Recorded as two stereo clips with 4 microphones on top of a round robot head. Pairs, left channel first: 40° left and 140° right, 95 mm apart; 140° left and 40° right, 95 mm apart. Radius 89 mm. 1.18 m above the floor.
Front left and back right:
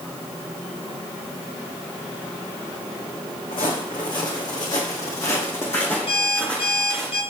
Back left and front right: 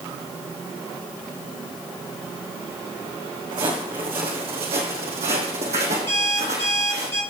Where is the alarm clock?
75° left, 3 m.